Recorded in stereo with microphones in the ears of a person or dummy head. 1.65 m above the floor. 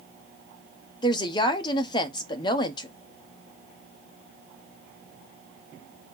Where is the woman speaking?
25° left (ahead or behind), 0.9 m.